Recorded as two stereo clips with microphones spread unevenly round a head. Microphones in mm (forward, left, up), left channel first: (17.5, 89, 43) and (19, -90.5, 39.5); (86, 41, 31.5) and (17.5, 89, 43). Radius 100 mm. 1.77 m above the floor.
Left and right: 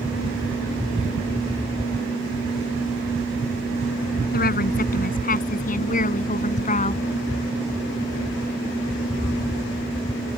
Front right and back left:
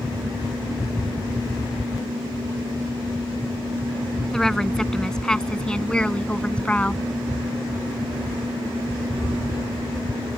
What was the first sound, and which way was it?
A woman speaking, 50° left.